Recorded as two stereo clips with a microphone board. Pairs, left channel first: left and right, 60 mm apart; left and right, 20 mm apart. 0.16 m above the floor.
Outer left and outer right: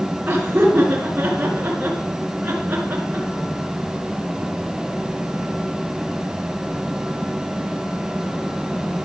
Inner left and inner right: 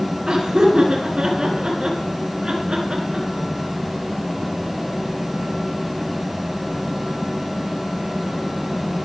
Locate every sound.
0.3 s laughter: 35° right (ahead or behind), 2 m